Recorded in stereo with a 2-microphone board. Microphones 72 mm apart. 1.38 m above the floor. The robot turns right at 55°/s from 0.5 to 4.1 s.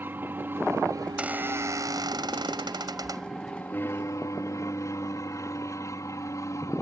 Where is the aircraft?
150° right; by 6.8 s 45° left.